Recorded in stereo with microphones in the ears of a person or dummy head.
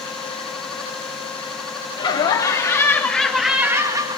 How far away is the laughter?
About 4 m.